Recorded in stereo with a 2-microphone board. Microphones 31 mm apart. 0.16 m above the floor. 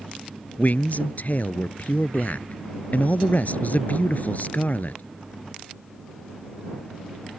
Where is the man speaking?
60° left (ahead or behind).